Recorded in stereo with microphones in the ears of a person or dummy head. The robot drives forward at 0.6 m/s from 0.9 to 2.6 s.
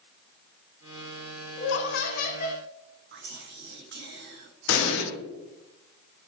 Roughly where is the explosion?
Left.